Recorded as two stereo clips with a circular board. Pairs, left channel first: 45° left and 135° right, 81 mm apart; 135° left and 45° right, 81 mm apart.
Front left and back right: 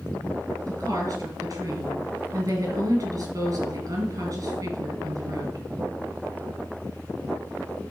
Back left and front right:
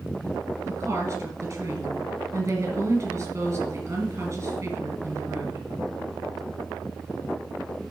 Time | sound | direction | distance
0.7 | a woman speaking | 90° right | 3.5 m